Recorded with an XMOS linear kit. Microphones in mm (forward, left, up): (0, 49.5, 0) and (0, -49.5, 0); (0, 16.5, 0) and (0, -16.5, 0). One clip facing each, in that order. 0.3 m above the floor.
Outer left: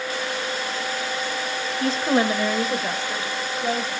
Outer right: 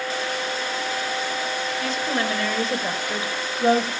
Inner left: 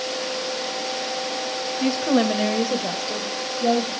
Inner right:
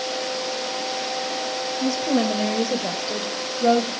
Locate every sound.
1.8 s a woman speaking: 40° left (ahead or behind), 1.4 m; by 3.9 s 45° right (ahead or behind), 1.4 m